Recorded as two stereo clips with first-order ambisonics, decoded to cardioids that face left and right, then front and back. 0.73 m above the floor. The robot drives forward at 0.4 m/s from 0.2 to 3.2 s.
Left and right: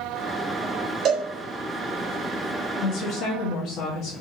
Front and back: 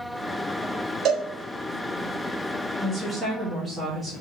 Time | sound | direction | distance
1.1 | a cowbell | 135° right | 1.6 m
2.8 | a woman speaking | 90° left | 0.9 m